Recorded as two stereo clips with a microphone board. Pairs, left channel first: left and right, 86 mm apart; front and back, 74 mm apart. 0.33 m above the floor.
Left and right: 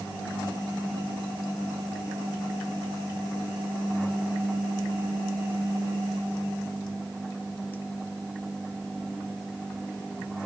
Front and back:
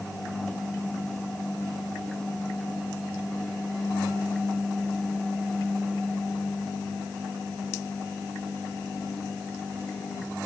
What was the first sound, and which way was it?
Only background noise.